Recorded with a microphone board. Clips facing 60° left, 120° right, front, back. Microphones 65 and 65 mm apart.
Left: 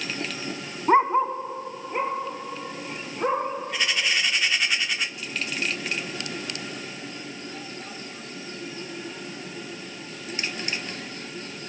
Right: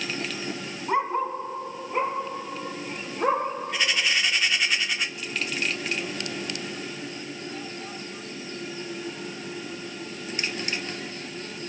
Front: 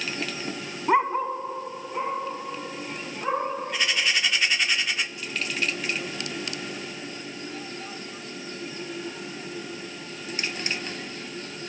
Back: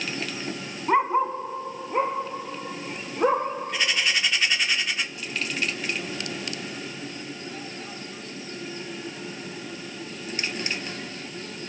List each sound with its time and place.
0.9 s a dog barking: 70° left, 0.6 m; by 3.5 s 150° left, 4 m